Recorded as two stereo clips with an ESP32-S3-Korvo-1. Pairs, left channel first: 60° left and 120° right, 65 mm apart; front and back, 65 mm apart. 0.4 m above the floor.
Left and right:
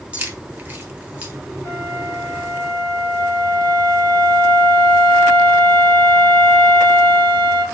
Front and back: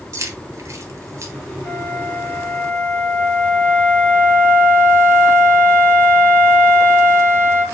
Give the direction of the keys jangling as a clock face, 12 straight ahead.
6 o'clock.